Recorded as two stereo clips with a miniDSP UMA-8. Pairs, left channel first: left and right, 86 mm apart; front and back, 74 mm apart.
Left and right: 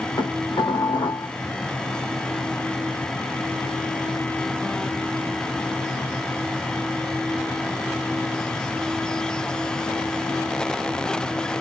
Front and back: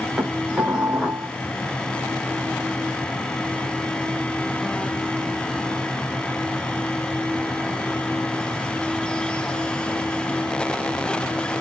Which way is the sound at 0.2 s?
110° left.